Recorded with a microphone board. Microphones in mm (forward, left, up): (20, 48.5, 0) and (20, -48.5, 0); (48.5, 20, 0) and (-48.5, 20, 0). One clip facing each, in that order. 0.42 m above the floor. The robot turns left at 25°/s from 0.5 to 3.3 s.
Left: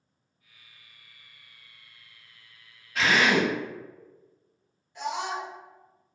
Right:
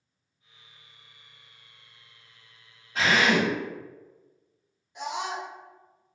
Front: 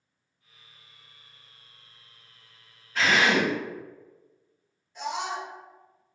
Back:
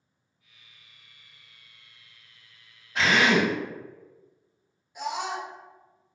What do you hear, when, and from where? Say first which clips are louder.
3.0 s a drill: even, back 1 dB; 120° right, 1.6 m; by 3.5 s 130° right, 1.6 m
5.0 s a scream: left 1 dB, even; 125° right, 0.8 m